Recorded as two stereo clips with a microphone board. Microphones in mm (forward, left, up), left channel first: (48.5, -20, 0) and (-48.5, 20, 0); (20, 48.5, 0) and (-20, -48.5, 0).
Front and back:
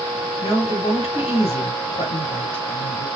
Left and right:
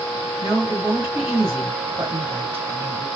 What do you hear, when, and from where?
0.4 s a woman speaking: 45° right, 2.5 m